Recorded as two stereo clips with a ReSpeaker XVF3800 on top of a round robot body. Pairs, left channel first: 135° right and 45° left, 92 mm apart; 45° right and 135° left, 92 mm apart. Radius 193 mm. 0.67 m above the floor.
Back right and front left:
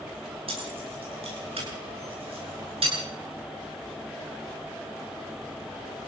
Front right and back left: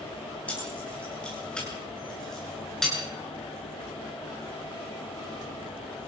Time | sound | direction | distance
0.5 | keys jangling | 30° left | 8.5 m